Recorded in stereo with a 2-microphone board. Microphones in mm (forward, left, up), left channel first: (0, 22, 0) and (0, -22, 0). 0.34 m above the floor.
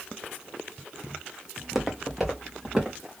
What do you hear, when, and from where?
1.6 s footsteps: 5° right (ahead or behind), 1.0 m